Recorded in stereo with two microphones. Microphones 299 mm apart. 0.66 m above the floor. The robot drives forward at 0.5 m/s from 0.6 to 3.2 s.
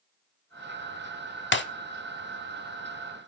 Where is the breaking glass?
40° left (ahead or behind), 0.9 m; by 1.6 s 35° left (ahead or behind), 0.9 m.